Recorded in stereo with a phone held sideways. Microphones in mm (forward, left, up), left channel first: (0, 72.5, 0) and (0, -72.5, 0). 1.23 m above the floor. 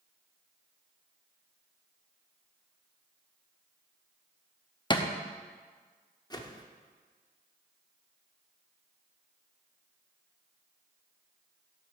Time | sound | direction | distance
4.9 | a thud | 30° left (ahead or behind) | 0.7 m
6.3 | a whoosh | 25° left (ahead or behind) | 0.8 m